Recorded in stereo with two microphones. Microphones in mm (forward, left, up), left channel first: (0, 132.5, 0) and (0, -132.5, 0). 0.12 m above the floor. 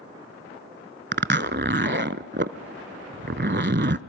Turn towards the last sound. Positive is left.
turn(degrees=-45)  # may be behind; listen again after turning